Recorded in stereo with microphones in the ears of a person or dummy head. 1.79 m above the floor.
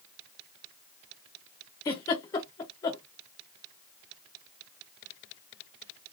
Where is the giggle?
15° left (ahead or behind), 0.7 m.